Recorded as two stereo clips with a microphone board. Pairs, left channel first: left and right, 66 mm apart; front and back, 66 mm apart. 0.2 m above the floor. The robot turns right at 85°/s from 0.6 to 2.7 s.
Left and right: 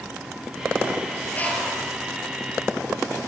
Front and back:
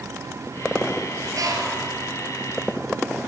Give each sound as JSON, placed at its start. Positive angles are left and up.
{"t": 1.3, "sound": "a bird", "azimuth_deg": 150, "distance_m": 3.0}